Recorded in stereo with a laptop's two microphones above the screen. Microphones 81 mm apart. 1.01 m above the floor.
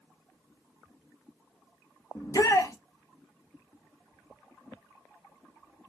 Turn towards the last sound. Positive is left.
turn(degrees=45)  # may be behind; listen again after turning